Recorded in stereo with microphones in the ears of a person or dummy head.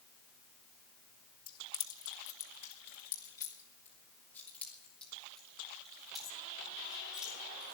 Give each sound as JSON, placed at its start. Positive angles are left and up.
{"t": 1.5, "sound": "keys jangling", "side_deg": 55, "distance_m": 1.7}